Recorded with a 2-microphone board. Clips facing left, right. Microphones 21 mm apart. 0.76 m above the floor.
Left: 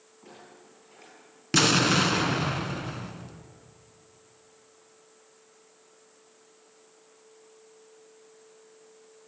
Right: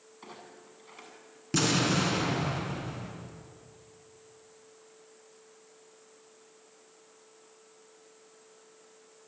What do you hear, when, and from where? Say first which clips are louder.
0.2 s a clunk: right 1 dB; 80° right, 7.5 m
1.5 s an explosion: left 5 dB; 35° left (ahead or behind), 2.0 m